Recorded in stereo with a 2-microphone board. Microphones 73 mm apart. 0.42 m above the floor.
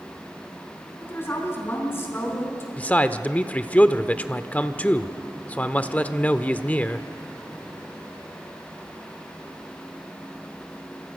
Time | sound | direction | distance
1.0 | a woman speaking | 30° left (ahead or behind) | 5 m
2.8 | a man speaking | 20° left (ahead or behind) | 0.8 m